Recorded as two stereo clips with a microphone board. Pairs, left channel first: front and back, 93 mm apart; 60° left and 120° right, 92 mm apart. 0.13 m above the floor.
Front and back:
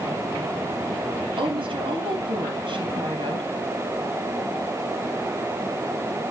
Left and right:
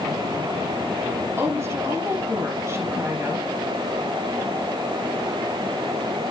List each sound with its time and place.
1.4 s a woman speaking: straight behind, 4 m